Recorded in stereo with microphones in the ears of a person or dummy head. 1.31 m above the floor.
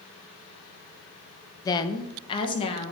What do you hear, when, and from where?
1.6 s a woman speaking: 20° left (ahead or behind), 0.6 m; by 2.9 s 30° left (ahead or behind), 1.3 m